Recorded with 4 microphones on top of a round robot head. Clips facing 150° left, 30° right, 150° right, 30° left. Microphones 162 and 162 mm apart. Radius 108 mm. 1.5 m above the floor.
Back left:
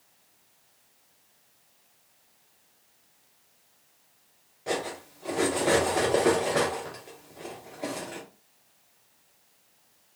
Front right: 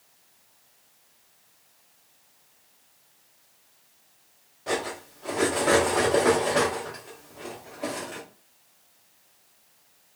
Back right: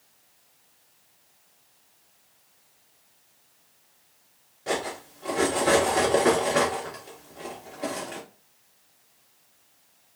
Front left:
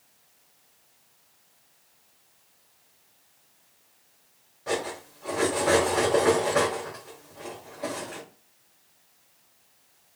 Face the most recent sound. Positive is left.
turn(degrees=-150)